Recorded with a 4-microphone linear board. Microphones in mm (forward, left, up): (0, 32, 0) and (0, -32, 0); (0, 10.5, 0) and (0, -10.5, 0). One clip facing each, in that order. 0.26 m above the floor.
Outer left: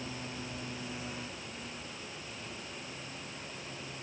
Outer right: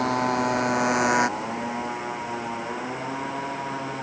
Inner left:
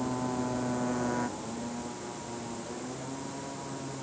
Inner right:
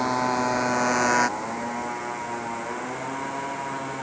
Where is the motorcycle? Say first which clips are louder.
Outer right 19 dB, inner right 9 dB; 75° right (ahead or behind); by 4.0 s 85° right.